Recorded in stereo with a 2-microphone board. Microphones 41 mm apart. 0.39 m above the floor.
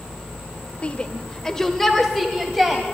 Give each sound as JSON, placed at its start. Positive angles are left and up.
{"t": 0.8, "sound": "a shout", "side_deg": 30, "distance_m": 1.1}